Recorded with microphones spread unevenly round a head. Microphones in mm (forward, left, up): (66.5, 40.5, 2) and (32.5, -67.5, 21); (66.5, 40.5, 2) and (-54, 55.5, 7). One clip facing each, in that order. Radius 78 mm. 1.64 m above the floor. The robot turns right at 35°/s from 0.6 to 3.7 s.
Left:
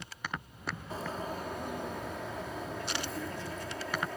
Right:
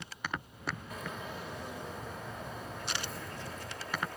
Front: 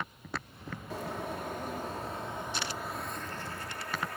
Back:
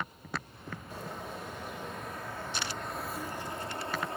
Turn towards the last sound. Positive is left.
turn(degrees=110)